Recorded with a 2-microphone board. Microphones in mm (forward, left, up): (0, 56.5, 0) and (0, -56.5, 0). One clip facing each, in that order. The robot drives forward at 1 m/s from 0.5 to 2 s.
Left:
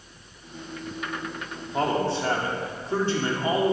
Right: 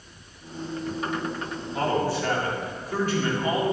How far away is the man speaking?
About 3 m.